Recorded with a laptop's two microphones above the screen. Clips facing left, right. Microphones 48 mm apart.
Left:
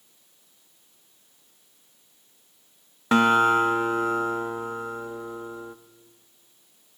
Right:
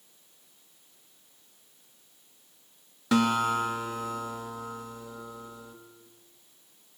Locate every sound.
3.1 s a guitar: 30° left (ahead or behind), 0.8 m